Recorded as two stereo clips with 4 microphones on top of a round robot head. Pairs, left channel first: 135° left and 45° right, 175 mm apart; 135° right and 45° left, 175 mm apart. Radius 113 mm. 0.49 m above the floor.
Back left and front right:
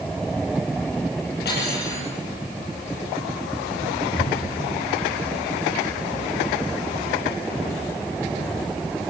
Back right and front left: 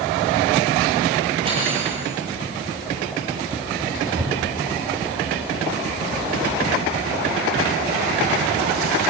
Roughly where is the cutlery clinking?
Left.